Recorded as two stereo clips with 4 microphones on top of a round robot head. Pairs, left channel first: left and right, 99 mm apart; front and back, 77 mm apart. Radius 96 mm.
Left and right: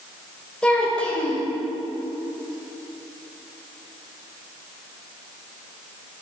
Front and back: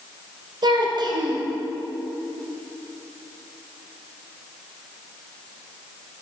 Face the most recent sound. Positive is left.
turn(degrees=170)